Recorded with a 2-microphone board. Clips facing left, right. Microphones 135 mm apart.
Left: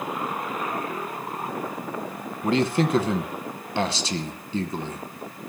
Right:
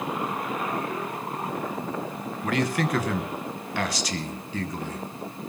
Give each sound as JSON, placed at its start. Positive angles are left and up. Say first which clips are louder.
{"t": 2.4, "sound": "a man speaking", "louder": "left 4 dB", "side_deg": 25, "distance_m": 1.1}